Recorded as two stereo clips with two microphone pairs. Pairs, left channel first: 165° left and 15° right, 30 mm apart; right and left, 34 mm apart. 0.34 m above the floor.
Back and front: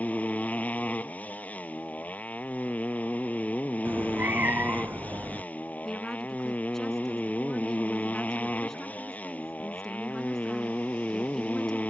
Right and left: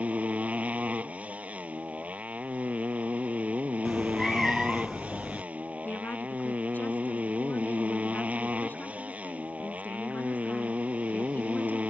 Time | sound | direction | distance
0.0 | a motorcycle | 135° left | ?
3.9 | a cat meowing | 10° right | ?
5.8 | a woman speaking | 115° right | ?